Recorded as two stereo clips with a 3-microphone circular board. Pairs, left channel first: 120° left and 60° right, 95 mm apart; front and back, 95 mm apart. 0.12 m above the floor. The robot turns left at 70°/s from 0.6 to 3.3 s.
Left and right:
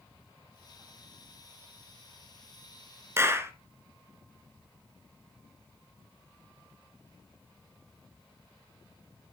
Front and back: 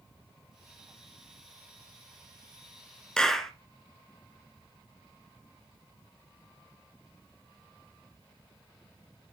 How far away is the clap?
About 1.1 m.